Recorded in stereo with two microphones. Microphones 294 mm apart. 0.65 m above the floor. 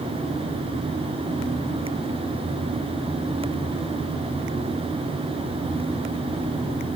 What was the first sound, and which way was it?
Only background noise.